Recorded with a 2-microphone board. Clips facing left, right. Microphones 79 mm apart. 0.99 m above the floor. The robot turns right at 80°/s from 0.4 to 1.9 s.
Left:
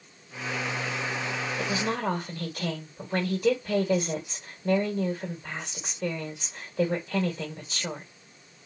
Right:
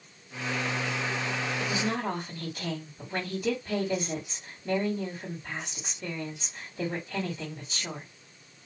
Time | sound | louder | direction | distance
1.6 | a woman speaking | left 3 dB | 45° left (ahead or behind) | 1.8 m